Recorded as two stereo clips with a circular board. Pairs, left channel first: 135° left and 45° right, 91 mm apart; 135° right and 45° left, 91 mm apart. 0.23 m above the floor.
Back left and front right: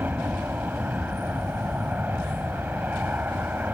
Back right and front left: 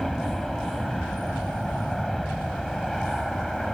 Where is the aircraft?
55° right.